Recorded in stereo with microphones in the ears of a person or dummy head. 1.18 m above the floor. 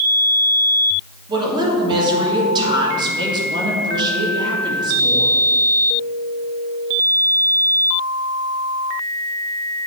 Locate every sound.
1.3 s a woman speaking: 25° right (ahead or behind), 2 m